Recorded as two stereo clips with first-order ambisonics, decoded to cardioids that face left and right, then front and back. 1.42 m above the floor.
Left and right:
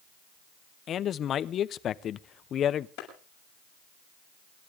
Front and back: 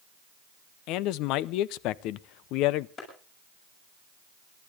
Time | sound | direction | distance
0.9 | a man speaking | 30° left | 0.5 m
3.0 | a clap | 55° left | 7 m